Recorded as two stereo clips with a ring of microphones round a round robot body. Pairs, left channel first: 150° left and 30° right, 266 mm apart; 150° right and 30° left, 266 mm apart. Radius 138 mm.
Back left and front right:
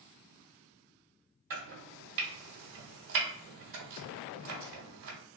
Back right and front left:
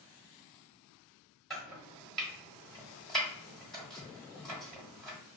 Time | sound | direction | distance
1.5 | chopping | 60° right | 1.3 m